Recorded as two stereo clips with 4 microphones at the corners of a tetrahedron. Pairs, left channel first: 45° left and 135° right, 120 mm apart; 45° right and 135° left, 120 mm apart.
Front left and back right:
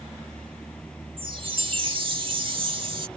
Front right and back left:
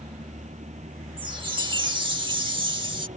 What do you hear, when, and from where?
0.0 s a vehicle: 125° left
1.2 s a chime: straight behind